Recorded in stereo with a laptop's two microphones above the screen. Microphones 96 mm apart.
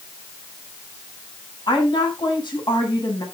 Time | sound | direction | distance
1.7 | a woman speaking | 55° left (ahead or behind) | 9 m